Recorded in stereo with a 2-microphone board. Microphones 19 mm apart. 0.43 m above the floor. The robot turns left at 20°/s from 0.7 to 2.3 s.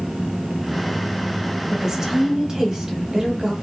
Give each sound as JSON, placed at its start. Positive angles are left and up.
{"t": 1.7, "sound": "a woman speaking", "side_deg": -25, "distance_m": 1.3}